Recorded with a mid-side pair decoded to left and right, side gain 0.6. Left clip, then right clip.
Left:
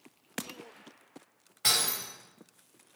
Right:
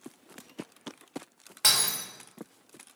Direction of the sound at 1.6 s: 60° right.